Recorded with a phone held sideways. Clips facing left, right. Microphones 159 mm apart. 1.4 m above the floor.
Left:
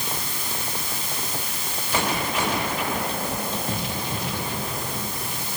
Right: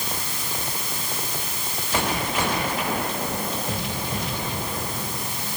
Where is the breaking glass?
No breaking glass in this recording.